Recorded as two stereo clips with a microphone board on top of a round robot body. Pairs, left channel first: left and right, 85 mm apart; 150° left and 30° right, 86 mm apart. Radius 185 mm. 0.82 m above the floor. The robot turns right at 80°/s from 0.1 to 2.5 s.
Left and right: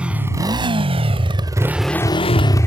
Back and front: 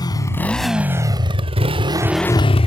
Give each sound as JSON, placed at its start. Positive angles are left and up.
{"t": 0.0, "sound": "a motorcycle", "azimuth_deg": -165}